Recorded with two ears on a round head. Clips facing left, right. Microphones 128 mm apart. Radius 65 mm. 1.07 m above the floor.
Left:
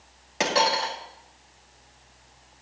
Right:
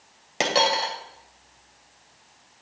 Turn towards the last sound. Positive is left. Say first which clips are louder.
# right 1 dB
turn(degrees=-30)  # may be behind; listen again after turning